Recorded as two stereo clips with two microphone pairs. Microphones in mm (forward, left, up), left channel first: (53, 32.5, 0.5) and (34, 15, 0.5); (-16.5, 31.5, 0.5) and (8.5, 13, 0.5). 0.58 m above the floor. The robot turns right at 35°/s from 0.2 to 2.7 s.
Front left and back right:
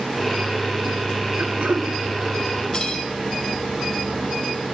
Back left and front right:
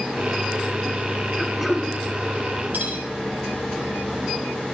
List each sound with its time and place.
1.4 s throat clearing: 130° right, 1.2 m; by 1.9 s 110° right, 1.2 m
2.7 s cutlery clinking: 15° right, 2 m